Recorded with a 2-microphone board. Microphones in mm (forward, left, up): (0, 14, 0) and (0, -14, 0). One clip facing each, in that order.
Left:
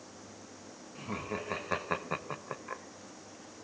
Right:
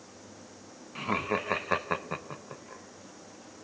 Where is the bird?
I don't hear a bird.